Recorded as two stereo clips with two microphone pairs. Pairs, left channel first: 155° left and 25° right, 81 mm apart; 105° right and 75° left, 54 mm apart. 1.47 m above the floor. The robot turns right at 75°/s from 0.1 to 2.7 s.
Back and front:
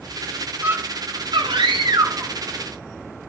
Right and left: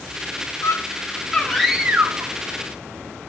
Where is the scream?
90° right, 1.4 m; by 2.3 s 35° left, 1.4 m.